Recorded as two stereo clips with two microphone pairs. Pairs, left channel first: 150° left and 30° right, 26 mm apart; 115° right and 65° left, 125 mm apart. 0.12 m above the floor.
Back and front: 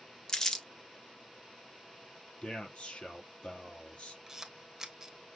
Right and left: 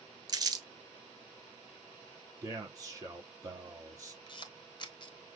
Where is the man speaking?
125° left, 3 m.